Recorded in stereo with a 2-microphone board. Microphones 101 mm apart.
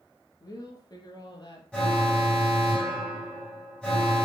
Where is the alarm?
10° left (ahead or behind), 6 m.